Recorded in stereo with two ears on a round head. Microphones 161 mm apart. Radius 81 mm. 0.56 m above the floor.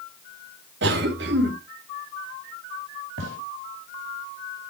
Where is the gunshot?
70° right (ahead or behind), 4.5 m.